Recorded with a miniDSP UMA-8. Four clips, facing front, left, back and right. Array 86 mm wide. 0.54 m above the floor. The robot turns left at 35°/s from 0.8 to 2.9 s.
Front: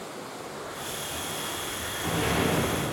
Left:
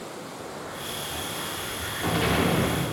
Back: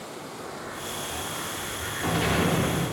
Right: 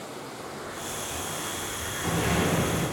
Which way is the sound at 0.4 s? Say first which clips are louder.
Left 1 dB, back 3 dB; 170° left.